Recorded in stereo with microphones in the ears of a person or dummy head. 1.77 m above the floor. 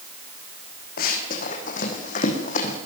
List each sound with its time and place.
1.0 s running footsteps: 55° left (ahead or behind), 6 m; by 2.8 s 45° left (ahead or behind), 6 m